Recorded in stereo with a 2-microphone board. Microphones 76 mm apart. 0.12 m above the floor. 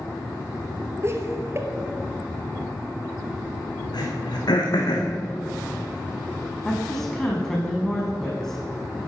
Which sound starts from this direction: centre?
A woman speaking, at 6.7 s.